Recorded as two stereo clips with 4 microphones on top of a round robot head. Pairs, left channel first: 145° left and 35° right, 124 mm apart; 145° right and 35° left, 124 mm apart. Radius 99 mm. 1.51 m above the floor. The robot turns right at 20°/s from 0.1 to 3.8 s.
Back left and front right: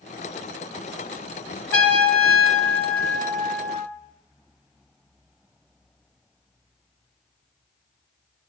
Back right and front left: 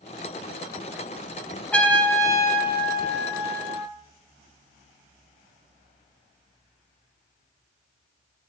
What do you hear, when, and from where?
1.7 s a trumpet: 135° left, 2 m; by 3.9 s 175° left, 2 m